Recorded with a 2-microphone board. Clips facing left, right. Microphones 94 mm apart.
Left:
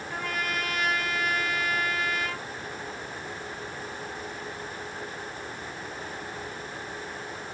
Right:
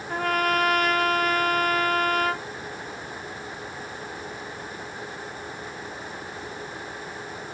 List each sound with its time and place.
0.1 s a trumpet: 55° right (ahead or behind), 1.0 m